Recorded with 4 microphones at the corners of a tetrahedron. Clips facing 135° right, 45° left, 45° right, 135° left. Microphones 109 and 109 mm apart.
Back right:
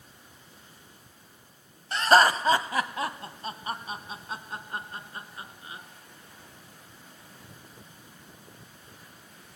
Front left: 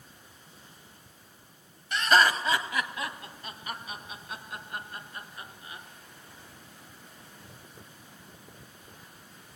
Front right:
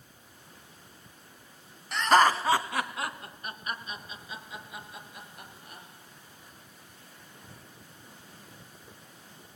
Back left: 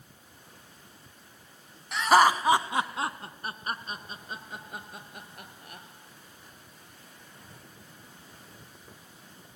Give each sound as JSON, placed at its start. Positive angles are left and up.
{"t": 1.9, "sound": "laughter", "azimuth_deg": -140, "distance_m": 1.1}